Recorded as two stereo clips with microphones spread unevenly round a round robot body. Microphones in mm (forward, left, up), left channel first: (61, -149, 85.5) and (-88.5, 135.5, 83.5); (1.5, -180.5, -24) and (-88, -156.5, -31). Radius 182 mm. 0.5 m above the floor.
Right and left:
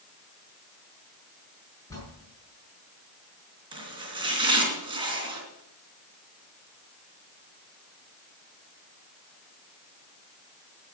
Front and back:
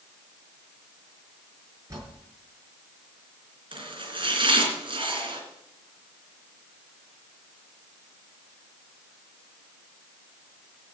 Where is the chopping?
165° right, 3 m.